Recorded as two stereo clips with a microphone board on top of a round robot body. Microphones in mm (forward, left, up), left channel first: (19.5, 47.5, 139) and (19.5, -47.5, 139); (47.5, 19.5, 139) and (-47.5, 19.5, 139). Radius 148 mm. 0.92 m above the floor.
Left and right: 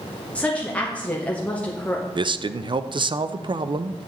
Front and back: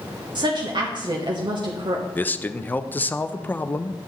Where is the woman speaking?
165° left, 1.2 m.